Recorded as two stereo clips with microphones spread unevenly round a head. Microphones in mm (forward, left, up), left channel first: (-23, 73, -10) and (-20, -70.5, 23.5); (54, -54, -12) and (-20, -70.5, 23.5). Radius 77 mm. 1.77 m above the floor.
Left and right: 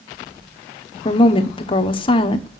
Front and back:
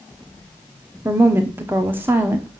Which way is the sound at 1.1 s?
150° left.